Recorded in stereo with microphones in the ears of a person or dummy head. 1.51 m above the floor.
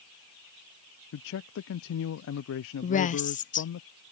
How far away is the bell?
I don't hear a bell.